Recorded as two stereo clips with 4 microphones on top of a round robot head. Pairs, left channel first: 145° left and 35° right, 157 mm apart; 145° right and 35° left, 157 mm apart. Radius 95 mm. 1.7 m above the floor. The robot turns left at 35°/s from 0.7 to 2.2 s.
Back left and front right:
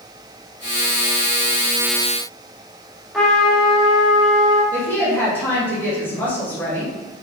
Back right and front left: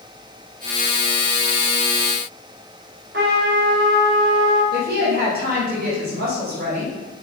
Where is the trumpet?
55° left, 1.7 m.